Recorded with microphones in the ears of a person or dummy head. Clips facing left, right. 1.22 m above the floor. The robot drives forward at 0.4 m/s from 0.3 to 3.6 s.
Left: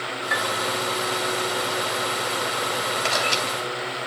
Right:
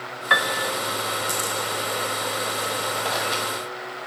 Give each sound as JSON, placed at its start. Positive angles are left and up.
{"t": 0.3, "sound": "a piano", "side_deg": -65, "distance_m": 0.6}
{"t": 3.0, "sound": "a camera shutter", "side_deg": 85, "distance_m": 3.0}